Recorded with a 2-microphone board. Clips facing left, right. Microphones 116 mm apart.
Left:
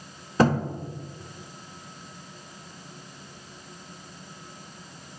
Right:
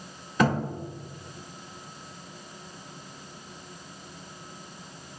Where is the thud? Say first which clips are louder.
Left 3 dB; 30° left (ahead or behind), 1.4 m.